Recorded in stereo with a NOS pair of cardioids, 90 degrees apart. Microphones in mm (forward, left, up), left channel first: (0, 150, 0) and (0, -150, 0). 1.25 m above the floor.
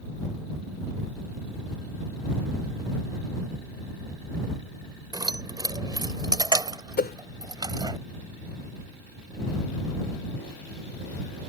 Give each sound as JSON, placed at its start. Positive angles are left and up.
{"t": 5.1, "sound": "keys jangling", "azimuth_deg": -15}
{"t": 7.0, "sound": "a whoosh", "azimuth_deg": 30}